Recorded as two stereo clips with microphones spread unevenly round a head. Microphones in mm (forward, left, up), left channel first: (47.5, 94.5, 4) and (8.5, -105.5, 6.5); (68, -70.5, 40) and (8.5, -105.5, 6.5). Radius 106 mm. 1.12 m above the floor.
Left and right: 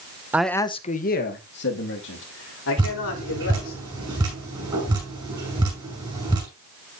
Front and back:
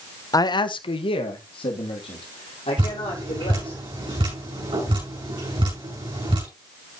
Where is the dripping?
175° right, 6.5 m.